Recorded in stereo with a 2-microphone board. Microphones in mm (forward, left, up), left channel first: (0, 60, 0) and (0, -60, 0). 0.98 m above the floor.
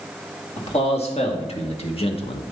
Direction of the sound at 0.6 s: 60° left (ahead or behind).